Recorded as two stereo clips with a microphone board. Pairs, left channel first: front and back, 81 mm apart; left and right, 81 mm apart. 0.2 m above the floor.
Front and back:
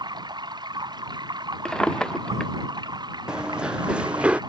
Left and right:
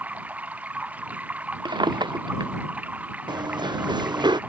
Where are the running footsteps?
100° right; by 4.4 s 105° right.